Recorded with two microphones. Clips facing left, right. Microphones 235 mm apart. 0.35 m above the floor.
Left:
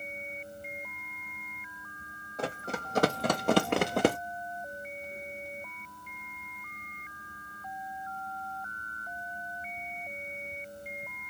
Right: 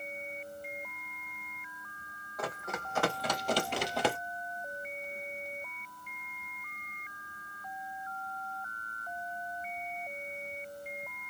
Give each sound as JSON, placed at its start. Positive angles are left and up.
{"t": 2.4, "sound": "running footsteps", "side_deg": 30, "distance_m": 1.4}